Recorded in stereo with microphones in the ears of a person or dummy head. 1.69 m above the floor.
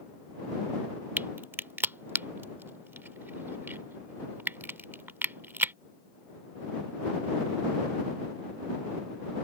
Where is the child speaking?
I don't hear a child speaking.